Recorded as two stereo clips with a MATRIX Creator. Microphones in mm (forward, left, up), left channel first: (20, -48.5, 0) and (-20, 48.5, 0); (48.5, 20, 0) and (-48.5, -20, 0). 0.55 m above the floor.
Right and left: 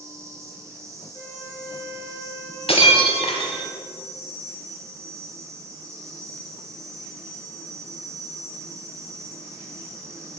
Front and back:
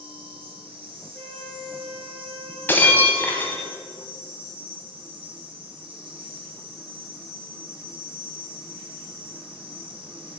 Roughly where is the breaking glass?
Ahead right.